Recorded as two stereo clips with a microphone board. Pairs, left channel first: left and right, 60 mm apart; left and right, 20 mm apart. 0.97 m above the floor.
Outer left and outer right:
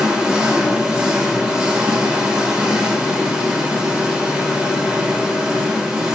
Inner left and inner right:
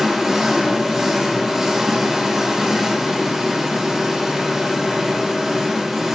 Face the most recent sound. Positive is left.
turn(degrees=-15)  # may be behind; listen again after turning